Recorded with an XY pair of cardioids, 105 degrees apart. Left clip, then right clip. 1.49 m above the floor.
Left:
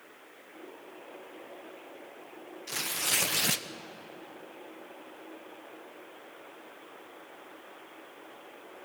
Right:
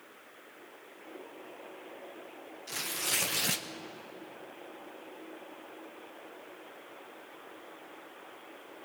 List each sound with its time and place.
2.7 s tearing paper: 20° left, 1.0 m